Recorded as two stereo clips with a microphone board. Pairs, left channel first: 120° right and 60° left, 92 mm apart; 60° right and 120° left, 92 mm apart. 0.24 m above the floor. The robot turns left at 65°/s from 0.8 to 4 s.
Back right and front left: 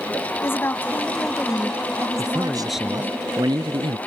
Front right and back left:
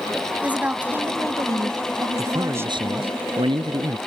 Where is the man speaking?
175° right; by 4.0 s 65° left.